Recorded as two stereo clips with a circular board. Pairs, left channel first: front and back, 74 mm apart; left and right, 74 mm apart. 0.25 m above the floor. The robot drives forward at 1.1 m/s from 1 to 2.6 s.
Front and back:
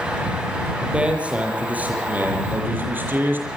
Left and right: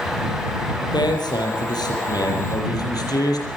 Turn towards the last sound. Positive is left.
turn(degrees=115)